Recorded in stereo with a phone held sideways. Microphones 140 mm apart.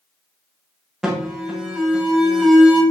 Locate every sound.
1.0 s an alarm: 5° right (ahead or behind), 1.5 m